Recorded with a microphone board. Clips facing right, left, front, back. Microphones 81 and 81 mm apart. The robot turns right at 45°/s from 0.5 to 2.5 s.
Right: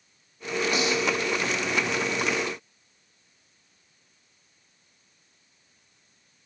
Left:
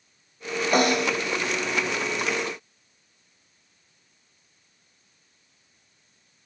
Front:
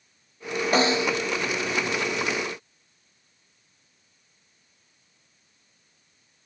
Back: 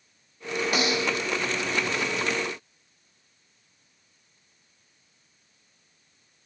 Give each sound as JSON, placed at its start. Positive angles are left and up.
{"t": 0.7, "sound": "a snare drum", "azimuth_deg": 55}